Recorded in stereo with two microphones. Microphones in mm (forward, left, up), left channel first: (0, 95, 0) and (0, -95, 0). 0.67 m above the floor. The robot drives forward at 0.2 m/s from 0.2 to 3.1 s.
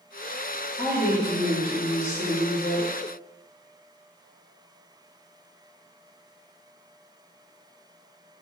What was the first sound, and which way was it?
A woman speaking, 15° left (ahead or behind).